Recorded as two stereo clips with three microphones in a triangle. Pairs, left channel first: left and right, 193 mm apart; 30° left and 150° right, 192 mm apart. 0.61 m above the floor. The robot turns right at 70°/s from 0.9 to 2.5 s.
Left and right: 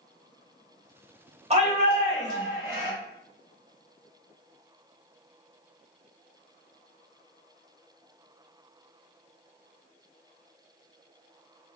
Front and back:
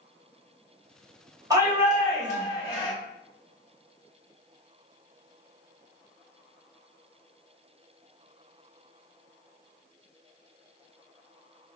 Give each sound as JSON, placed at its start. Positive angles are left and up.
{"t": 1.5, "sound": "a shout", "azimuth_deg": -95, "distance_m": 1.1}